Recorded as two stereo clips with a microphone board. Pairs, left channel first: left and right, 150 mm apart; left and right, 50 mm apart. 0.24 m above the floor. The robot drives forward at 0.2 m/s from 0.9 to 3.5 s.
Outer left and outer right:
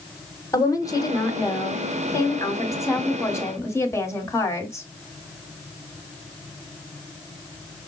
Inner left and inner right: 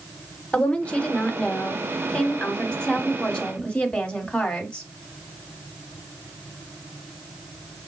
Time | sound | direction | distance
0.5 | a woman speaking | 25° left (ahead or behind) | 1.1 m